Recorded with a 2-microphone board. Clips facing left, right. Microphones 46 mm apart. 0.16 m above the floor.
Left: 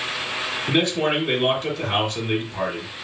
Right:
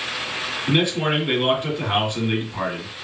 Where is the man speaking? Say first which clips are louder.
Even; 20° right (ahead or behind), 1.5 m.